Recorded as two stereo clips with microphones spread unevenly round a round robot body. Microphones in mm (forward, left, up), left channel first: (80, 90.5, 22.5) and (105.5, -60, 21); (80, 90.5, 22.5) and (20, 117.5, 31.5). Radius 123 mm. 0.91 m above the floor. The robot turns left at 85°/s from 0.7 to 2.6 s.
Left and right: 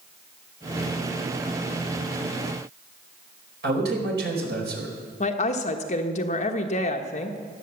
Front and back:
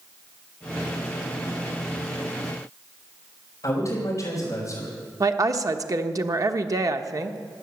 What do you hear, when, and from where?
3.6 s a man speaking: 85° right, 4.5 m
5.2 s a woman speaking: 135° left, 1.2 m